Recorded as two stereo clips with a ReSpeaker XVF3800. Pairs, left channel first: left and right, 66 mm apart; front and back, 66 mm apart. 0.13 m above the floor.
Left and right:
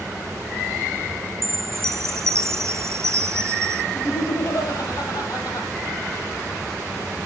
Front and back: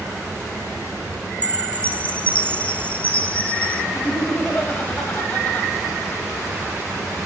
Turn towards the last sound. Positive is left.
turn(degrees=60)